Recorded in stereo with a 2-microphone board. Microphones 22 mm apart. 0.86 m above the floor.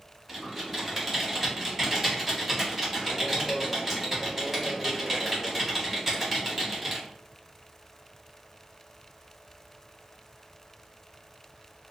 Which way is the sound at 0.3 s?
15° right (ahead or behind).